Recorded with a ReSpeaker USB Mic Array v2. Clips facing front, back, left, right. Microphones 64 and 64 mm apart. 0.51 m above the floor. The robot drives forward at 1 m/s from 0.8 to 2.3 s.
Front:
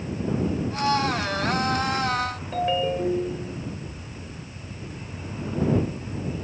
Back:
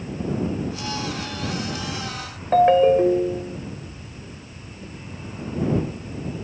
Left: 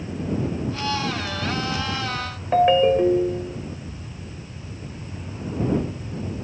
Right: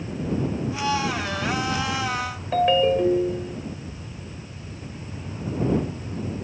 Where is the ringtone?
155° left, 0.9 m.